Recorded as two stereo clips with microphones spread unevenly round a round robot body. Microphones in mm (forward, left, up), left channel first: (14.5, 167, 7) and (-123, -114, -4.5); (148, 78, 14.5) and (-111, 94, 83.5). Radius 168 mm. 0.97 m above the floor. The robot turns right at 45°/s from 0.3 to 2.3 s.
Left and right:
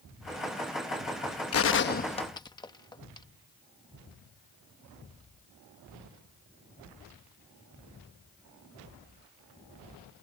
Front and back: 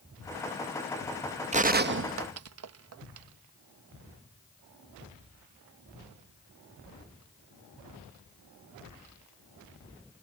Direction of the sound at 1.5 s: 105° left.